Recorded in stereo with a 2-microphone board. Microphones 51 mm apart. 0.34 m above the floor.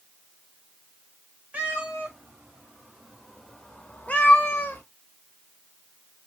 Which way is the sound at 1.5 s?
35° right (ahead or behind).